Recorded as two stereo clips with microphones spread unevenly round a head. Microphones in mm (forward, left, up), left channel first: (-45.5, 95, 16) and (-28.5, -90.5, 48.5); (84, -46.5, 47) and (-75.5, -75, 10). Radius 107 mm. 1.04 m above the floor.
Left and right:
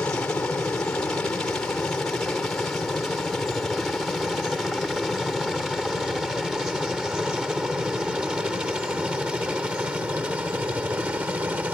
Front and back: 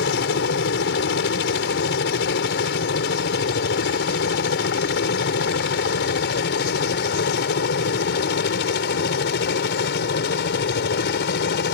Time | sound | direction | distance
0.0 | a helicopter | 15° left | ?